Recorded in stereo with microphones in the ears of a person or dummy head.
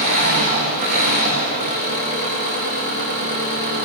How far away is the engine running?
About 8 m.